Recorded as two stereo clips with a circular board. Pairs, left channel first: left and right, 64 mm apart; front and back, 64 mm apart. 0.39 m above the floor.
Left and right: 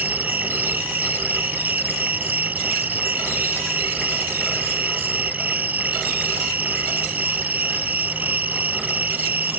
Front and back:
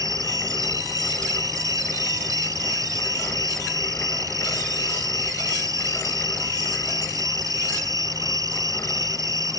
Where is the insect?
155° right.